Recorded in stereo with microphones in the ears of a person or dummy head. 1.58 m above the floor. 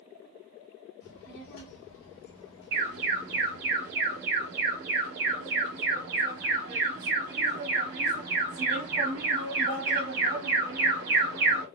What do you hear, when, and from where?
1.0 s a child speaking: 65° left (ahead or behind), 1.5 m; by 3.7 s 55° left (ahead or behind), 1.5 m
2.7 s an alarm: 60° right (ahead or behind), 1.4 m